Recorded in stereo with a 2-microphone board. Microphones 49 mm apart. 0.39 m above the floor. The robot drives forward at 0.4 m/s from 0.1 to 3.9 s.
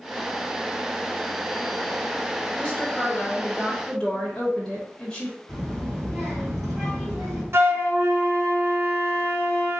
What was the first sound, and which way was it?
A woman speaking, 25° left (ahead or behind).